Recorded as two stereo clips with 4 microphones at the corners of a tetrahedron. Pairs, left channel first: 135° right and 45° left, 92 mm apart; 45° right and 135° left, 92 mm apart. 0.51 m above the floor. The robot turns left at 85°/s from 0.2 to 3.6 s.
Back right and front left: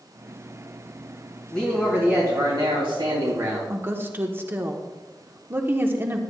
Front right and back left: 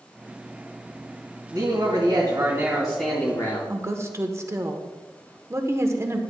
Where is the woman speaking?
95° left, 1.1 m.